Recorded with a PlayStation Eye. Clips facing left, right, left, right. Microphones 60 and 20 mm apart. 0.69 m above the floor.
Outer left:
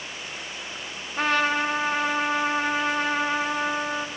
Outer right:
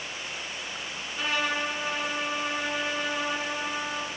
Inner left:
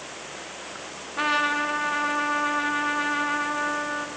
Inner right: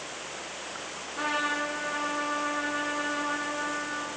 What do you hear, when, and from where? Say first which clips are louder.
1.2 s a trumpet: outer left 6 dB, inner left 6 dB; 55° left (ahead or behind), 0.6 m